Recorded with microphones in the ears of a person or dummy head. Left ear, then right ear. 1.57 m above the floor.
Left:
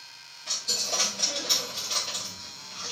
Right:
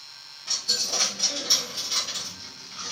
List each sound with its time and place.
0.5 s a dropped coin: 20° left (ahead or behind), 0.9 m